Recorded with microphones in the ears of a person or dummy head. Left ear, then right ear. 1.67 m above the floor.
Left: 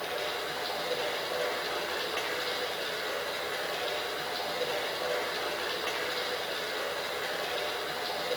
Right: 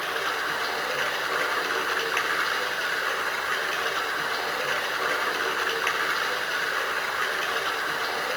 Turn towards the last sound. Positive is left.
turn(degrees=-35)  # may be behind; listen again after turning